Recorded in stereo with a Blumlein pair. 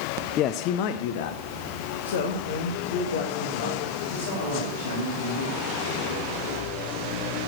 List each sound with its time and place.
0.4 s a man speaking: 30° left, 0.6 m; by 5.6 s 70° left, 3.5 m